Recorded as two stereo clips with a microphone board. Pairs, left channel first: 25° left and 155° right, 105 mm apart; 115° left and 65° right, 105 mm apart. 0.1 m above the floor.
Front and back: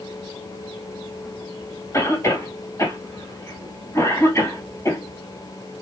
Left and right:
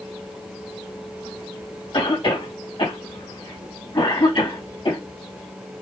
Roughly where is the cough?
Left.